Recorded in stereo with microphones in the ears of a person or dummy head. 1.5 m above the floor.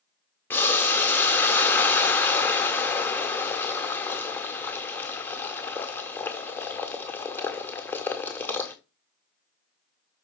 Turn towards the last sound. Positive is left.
turn(degrees=10)  # may be behind; listen again after turning